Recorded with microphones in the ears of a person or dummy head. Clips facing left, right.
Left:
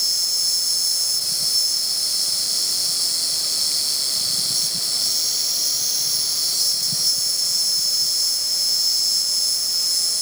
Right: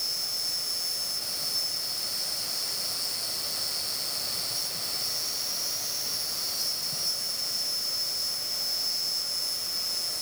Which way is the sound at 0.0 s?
40° left (ahead or behind).